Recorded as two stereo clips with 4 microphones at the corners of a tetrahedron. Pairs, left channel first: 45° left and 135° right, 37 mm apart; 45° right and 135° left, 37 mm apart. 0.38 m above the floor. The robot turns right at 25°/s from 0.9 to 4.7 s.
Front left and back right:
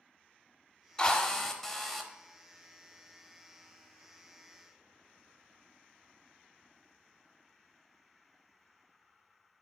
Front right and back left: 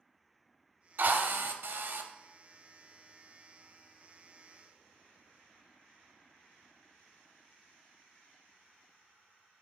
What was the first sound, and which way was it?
A drill, 110° left.